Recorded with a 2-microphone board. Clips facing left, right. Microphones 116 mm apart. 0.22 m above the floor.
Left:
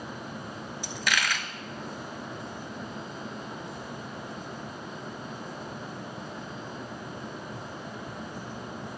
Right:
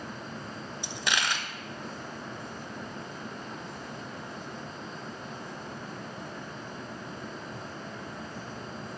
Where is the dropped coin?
25° right (ahead or behind), 0.7 m.